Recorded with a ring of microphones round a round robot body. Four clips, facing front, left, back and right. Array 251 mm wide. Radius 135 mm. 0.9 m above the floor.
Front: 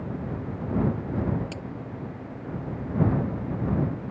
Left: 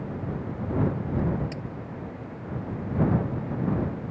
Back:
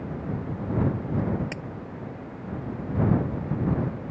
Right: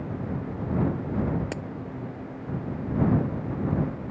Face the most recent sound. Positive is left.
turn(degrees=-105)